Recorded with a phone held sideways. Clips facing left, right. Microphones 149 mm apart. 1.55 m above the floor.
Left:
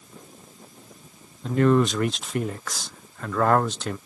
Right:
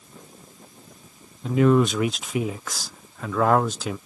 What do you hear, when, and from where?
1.4 s a man speaking: 5° right (ahead or behind)